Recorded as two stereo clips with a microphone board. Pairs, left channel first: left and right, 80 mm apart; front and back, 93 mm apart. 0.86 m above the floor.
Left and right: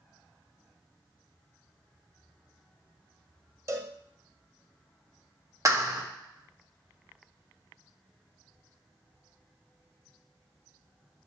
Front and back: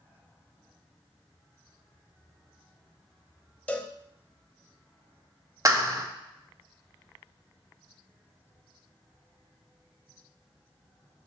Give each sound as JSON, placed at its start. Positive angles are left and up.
{"t": 3.7, "sound": "a cowbell", "azimuth_deg": -70, "distance_m": 0.8}
{"t": 5.7, "sound": "a clap", "azimuth_deg": -130, "distance_m": 1.2}